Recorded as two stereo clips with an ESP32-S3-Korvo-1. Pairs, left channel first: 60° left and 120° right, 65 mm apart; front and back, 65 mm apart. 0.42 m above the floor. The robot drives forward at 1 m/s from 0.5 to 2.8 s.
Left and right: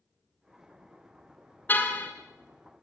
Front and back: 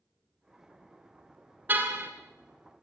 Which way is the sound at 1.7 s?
120° left.